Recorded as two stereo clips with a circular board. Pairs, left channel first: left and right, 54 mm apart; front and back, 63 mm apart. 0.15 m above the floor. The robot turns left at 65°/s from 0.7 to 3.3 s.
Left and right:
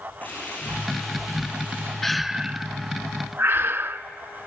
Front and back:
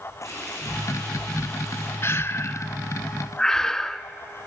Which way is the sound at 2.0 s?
5° left.